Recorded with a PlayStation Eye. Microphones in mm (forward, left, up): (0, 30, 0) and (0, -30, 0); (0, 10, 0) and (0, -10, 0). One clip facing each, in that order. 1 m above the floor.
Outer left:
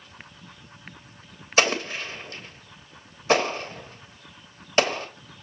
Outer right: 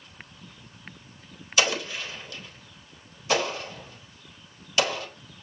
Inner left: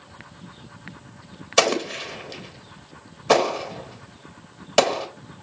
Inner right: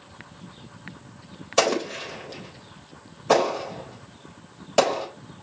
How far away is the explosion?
About 1.1 m.